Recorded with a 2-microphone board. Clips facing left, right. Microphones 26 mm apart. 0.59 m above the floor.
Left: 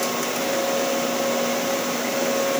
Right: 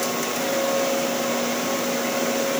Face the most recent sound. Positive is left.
No sound to turn to.